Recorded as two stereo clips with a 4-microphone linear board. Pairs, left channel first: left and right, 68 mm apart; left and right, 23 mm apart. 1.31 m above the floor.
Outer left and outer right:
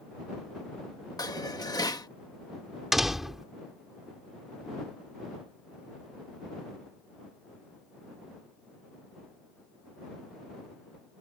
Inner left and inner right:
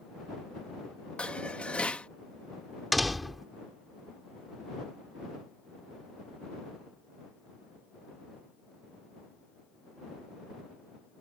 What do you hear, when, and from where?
1.2 s dishes clattering: 65° left (ahead or behind)
2.9 s a door slam: 5° right (ahead or behind)